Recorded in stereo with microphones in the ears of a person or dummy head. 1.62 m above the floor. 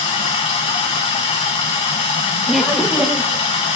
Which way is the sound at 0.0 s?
35° left (ahead or behind).